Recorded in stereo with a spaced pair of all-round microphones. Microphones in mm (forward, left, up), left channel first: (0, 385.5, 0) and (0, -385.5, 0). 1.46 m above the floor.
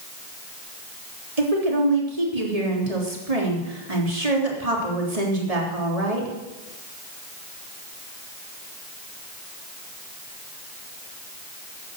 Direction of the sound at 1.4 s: 50° right (ahead or behind).